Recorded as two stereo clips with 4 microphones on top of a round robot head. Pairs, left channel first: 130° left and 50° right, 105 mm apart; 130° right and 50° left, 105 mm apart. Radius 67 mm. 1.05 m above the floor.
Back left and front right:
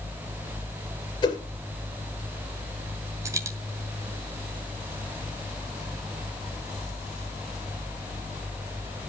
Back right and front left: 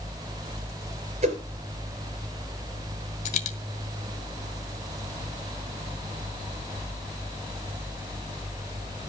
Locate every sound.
1.2 s a whoosh: 80° left, 3 m
3.2 s a dropped coin: 115° right, 1.3 m